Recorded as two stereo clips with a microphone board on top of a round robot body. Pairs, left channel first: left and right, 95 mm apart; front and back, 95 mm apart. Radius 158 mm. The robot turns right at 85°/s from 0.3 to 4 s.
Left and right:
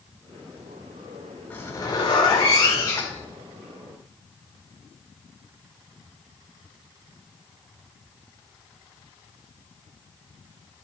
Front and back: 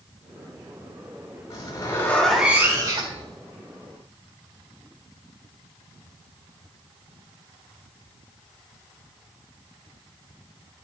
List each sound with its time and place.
1.5 s a zipper: 20° left, 3 m; by 3.3 s 175° left, 3 m